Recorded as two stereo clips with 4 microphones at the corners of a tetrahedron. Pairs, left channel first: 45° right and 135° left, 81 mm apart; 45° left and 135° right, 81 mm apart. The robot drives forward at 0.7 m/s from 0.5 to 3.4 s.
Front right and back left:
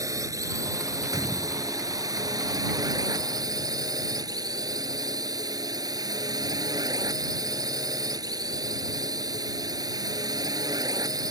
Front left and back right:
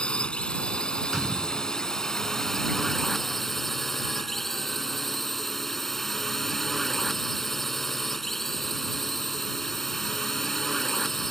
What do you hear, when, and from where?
0.0 s a drone: 120° left; by 11.3 s 130° left
1.1 s a gunshot: 145° left; by 1.8 s 155° left